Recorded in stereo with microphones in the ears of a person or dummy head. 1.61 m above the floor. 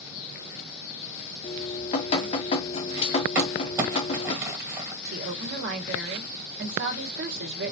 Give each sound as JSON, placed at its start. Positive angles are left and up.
{"t": 1.4, "sound": "dripping", "side_deg": 35, "distance_m": 1.3}
{"t": 3.4, "sound": "crumpling", "side_deg": -15, "distance_m": 2.0}
{"t": 5.0, "sound": "a woman speaking", "side_deg": -55, "distance_m": 2.0}